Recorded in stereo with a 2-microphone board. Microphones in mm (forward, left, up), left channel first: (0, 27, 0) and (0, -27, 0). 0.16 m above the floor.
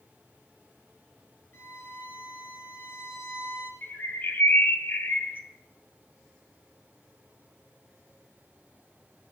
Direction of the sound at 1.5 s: 45° left (ahead or behind).